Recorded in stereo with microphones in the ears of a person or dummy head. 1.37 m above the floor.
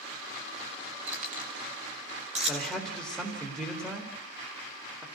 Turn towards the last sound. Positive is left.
turn(degrees=-10)  # may be behind; listen again after turning